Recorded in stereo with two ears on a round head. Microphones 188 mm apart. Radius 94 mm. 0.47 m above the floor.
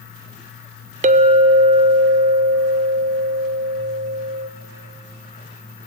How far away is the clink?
About 0.6 m.